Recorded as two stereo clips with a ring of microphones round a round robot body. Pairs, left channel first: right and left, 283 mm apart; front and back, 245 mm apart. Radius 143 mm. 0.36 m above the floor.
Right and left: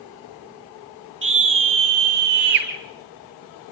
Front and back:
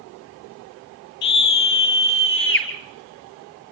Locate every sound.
1.2 s a scream: 40° left, 8 m; by 2.7 s 35° left, 6.5 m